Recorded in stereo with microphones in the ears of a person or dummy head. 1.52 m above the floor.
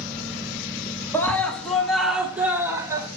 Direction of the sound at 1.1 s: 10° left (ahead or behind).